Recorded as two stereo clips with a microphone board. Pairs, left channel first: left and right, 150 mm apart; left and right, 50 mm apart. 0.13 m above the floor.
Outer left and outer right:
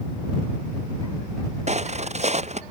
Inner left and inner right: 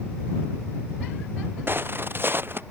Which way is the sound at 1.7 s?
50° right (ahead or behind).